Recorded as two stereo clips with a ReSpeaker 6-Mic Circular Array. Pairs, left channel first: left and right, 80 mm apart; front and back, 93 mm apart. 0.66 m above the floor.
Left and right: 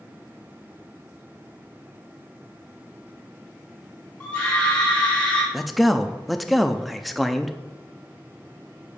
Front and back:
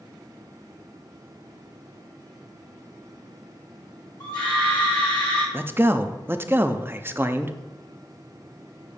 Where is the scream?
20° left, 1.6 m.